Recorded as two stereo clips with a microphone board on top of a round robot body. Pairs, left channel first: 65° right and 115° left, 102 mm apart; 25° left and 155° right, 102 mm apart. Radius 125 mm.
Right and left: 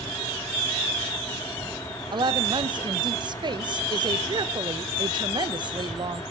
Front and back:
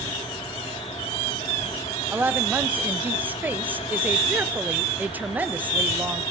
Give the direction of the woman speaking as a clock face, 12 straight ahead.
8 o'clock.